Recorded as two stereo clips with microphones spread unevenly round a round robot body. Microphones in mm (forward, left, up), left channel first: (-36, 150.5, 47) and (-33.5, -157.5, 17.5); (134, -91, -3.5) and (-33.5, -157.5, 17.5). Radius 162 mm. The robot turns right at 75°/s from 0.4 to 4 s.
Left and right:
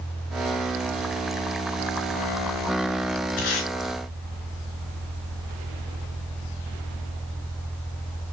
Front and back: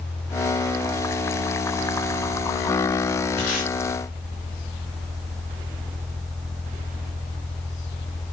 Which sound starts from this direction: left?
Tape being pulled, at 3.4 s.